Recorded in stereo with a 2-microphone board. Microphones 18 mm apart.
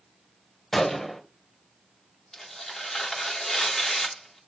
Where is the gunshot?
20° left (ahead or behind), 1.0 m.